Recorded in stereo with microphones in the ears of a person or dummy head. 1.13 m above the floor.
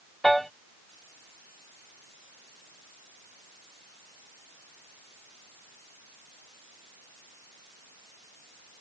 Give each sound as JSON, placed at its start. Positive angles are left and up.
{"t": 0.2, "sound": "a piano", "side_deg": 0}